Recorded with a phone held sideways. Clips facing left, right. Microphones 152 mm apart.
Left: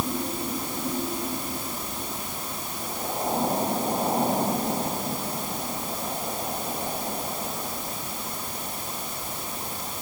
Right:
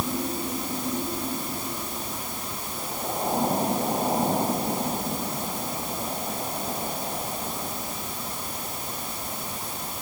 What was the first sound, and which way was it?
Only background noise.